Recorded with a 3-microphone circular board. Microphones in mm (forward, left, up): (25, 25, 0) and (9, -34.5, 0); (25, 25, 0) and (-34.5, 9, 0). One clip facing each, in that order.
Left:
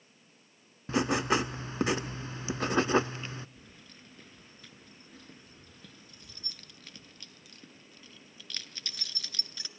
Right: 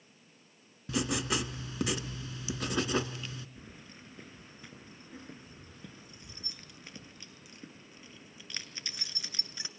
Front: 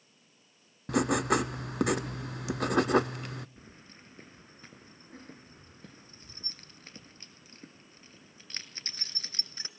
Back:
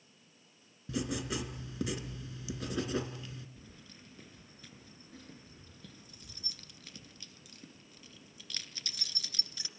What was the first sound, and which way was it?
Writing, 20° left.